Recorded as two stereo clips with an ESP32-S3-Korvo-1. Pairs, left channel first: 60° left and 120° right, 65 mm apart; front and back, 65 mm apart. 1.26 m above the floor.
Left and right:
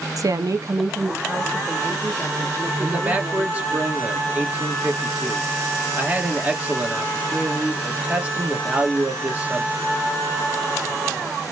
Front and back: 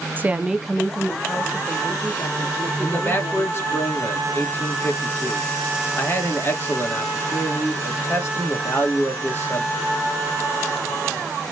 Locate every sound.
0.2 s a woman speaking: 125° right, 0.5 m; by 3.8 s 40° right, 2.5 m
2.8 s a man speaking: 55° right, 1.6 m